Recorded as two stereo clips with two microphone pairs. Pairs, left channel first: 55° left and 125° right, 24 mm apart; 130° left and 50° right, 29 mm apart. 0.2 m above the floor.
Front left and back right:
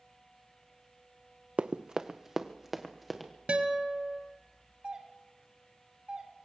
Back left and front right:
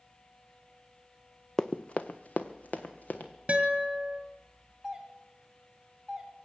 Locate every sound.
1.6 s running footsteps: 155° right, 0.6 m; by 3.3 s 145° left, 1.9 m
3.5 s a guitar: 95° right, 1.7 m
4.8 s a doorbell: 120° right, 2 m